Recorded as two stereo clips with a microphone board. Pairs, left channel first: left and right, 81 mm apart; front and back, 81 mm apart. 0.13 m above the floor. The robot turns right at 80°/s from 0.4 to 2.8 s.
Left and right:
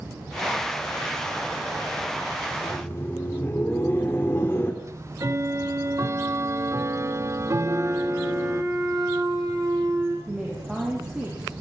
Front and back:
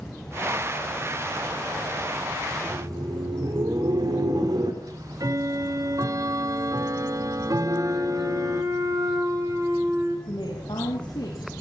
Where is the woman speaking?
10° right, 7 m.